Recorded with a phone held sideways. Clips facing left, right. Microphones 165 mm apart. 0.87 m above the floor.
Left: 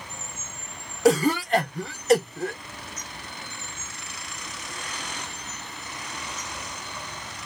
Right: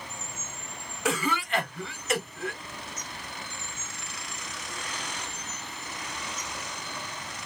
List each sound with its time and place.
1.1 s a cough: 40° left (ahead or behind), 0.8 m